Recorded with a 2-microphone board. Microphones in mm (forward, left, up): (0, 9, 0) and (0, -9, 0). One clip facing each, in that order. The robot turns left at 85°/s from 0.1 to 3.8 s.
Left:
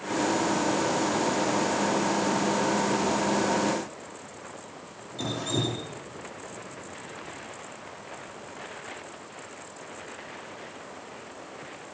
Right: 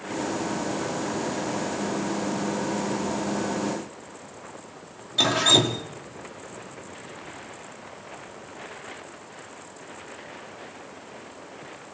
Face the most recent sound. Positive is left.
turn(degrees=-75)  # may be behind; listen again after turning